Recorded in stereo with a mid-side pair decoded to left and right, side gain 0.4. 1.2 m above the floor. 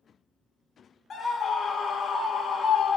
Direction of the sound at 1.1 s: 55° left.